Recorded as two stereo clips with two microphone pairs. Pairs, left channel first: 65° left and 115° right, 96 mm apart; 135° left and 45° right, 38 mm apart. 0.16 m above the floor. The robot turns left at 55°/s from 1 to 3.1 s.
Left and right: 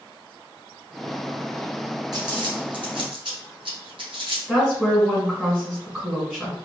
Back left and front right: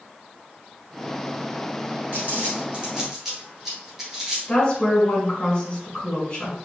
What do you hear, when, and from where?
2.1 s crumpling: 75° right, 1.7 m; by 4.4 s 130° right, 1.7 m
4.5 s a woman speaking: 175° right, 1.7 m